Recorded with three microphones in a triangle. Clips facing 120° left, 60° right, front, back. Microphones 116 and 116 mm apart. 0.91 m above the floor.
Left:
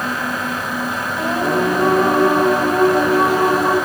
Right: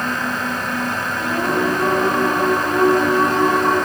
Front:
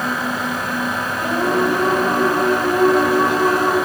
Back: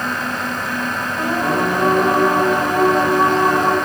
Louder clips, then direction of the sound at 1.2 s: Left 2 dB, front 1 dB; 105° left.